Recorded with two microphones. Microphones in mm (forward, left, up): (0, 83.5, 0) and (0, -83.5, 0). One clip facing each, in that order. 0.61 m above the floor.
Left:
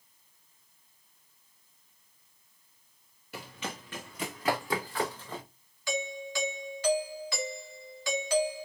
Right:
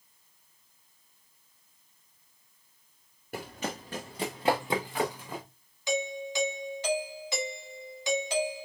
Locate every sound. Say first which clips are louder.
3.3 s running footsteps: right 4 dB; 55° right (ahead or behind), 2.5 m; by 5.4 s 10° right (ahead or behind), 3 m
5.9 s a doorbell: right 3 dB; 20° right (ahead or behind), 2 m